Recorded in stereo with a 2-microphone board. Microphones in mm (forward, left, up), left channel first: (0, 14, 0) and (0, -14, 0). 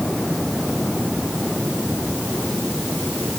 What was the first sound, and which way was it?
Only background noise.